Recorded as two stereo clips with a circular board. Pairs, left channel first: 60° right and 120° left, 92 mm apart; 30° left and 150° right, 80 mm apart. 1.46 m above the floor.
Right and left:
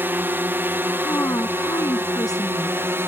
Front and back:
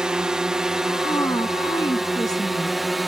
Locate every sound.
0.0 s a drone: 145° left; by 3.1 s 120° left
1.0 s a woman speaking: 10° right